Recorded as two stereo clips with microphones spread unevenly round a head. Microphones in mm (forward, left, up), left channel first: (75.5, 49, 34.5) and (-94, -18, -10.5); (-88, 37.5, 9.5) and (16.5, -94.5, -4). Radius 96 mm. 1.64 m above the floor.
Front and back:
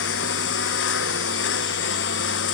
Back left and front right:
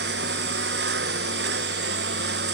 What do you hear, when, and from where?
0.0 s a lawn mower: 10° right